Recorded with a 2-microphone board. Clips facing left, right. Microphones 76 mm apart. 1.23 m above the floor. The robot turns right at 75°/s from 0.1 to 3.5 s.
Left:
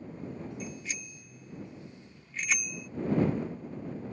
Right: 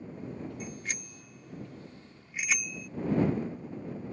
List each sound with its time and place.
0.6 s a bicycle bell: 35° right (ahead or behind); by 2.9 s 25° left (ahead or behind)